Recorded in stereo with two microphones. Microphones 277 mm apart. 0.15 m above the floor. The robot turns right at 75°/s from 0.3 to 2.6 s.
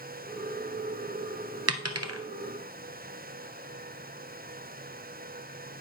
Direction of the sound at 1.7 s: 60° right (ahead or behind).